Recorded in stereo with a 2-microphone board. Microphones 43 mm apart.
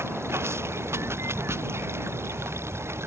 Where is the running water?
80° right.